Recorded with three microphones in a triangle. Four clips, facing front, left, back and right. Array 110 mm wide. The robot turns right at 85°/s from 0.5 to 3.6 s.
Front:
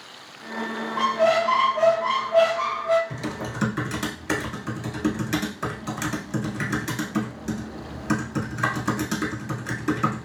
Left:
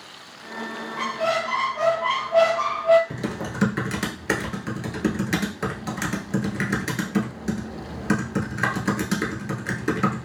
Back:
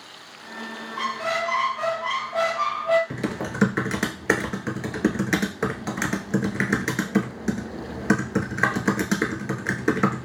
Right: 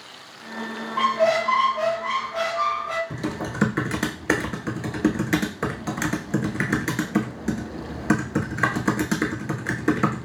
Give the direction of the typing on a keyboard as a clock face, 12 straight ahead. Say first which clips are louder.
Right 1 dB, back 3 dB; 6 o'clock.